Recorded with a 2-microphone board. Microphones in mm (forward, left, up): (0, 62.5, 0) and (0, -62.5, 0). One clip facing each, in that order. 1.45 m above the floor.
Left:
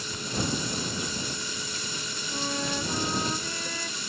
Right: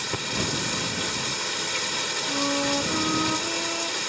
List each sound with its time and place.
0.0 s running water: 80° right
2.3 s a flute: 30° right (ahead or behind)